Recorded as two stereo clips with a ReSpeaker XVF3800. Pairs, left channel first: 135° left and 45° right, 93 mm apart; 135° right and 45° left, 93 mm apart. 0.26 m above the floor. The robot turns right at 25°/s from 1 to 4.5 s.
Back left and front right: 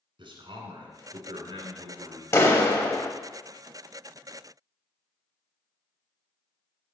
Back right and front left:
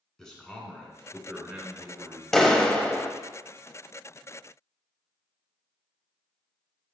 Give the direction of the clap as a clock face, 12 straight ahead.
7 o'clock.